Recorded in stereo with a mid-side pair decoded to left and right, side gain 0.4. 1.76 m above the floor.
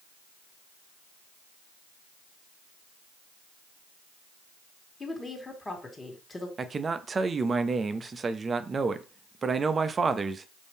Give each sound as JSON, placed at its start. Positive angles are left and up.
{"t": 5.0, "sound": "a woman speaking", "azimuth_deg": 25, "distance_m": 1.8}
{"t": 6.6, "sound": "a man speaking", "azimuth_deg": -40, "distance_m": 0.6}